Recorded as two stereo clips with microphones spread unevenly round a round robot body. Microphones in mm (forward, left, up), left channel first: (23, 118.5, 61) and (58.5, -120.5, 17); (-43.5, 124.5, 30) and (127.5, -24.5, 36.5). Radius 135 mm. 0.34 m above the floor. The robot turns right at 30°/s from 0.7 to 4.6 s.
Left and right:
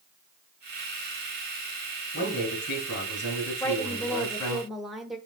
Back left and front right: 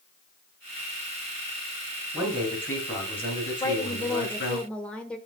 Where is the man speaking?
45° left, 3.5 m; by 4.6 s 120° left, 3.5 m.